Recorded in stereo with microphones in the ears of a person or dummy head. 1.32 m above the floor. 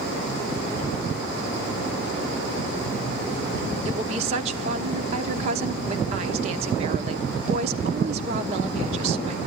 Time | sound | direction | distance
3.9 | a woman speaking | 35° right (ahead or behind) | 1.1 m